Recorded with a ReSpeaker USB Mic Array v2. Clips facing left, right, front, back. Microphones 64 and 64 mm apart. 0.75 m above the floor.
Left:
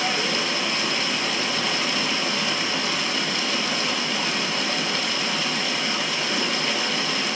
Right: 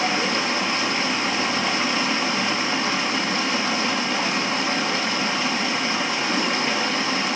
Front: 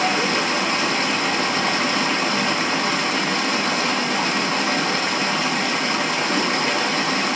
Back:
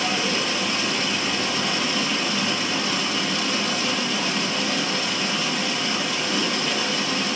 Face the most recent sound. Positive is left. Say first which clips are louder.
# right 2 dB, front 4 dB
turn(degrees=-30)